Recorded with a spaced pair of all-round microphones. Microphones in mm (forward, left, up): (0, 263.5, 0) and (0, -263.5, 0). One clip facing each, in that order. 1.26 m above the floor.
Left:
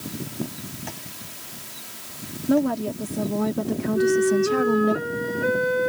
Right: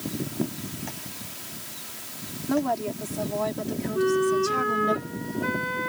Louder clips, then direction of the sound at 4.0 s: Left 3 dB; 20° right (ahead or behind).